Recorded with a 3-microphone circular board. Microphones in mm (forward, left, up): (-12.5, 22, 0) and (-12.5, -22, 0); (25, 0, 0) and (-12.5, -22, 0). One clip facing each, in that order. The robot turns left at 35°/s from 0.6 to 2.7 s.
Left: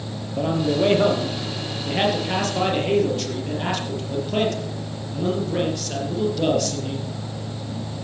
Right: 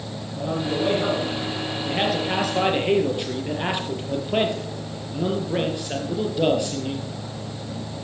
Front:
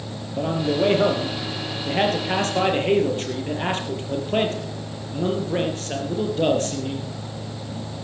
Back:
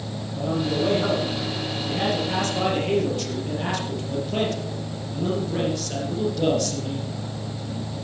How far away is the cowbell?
No cowbell in this recording.